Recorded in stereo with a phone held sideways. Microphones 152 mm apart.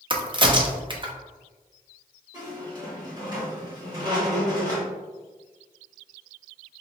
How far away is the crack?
About 0.5 m.